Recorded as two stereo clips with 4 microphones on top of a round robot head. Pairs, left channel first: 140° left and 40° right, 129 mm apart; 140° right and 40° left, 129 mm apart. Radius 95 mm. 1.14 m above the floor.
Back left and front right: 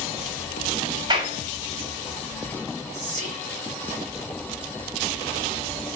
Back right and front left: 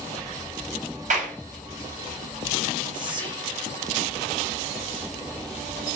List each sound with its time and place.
1.1 s a clap: 15° left, 7 m
2.9 s whispering: 10° right, 5 m